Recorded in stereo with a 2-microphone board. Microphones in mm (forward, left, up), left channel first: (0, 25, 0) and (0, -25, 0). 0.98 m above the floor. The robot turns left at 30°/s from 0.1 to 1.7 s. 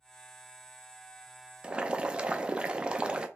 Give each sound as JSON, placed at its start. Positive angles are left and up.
{"t": 1.6, "sound": "boiling", "side_deg": -20, "distance_m": 0.5}